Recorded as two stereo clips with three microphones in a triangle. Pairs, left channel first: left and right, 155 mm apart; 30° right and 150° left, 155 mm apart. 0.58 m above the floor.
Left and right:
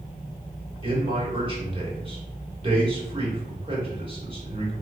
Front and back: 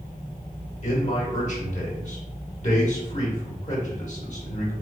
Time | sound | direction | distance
0.8 | a man speaking | 45° right | 1.4 m